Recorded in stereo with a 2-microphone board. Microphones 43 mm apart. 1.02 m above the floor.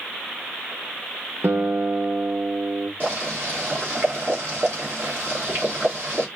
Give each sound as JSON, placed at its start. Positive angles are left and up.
{"t": 1.4, "sound": "a guitar", "side_deg": -65, "distance_m": 1.2}
{"t": 3.0, "sound": "boiling", "side_deg": -40, "distance_m": 2.5}